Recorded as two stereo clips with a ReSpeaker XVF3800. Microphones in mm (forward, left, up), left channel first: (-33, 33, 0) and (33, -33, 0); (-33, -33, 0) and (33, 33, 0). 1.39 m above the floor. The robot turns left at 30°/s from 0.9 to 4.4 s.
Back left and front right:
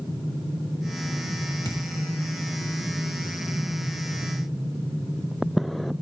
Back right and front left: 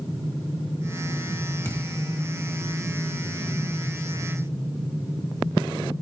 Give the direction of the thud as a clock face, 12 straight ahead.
6 o'clock.